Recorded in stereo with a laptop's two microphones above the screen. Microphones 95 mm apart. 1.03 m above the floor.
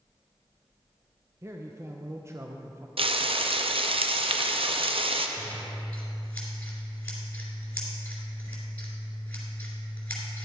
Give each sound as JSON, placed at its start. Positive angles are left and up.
{"t": 1.4, "sound": "a man speaking", "side_deg": -30, "distance_m": 0.6}
{"t": 3.0, "sound": "frying", "side_deg": -70, "distance_m": 0.5}
{"t": 5.4, "sound": "scissors", "side_deg": 15, "distance_m": 3.0}